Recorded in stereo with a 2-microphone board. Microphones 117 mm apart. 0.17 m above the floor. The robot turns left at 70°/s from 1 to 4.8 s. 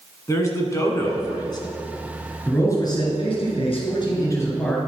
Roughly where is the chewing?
No chewing in this recording.